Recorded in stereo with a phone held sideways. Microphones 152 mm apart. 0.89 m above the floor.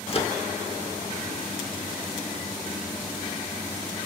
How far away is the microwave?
About 1.6 m.